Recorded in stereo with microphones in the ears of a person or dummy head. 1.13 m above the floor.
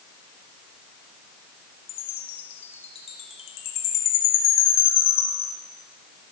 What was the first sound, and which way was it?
A chime, 35° left (ahead or behind).